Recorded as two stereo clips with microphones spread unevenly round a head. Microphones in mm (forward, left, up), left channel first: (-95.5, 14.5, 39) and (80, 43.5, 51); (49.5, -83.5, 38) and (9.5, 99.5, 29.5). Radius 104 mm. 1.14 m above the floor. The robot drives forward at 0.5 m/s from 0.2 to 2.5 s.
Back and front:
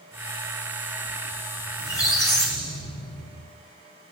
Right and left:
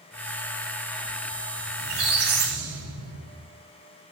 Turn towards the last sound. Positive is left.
turn(degrees=125)